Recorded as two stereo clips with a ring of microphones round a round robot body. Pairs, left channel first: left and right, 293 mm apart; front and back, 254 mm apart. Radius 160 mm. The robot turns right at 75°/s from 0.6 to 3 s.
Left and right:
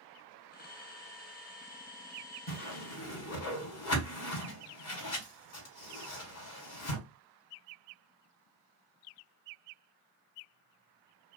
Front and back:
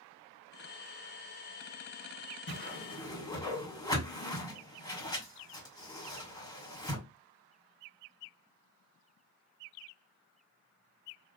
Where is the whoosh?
35° left, 2 m; by 7.0 s 75° left, 2 m.